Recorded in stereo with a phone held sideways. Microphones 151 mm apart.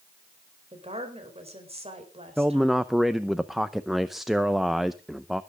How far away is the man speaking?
About 0.6 m.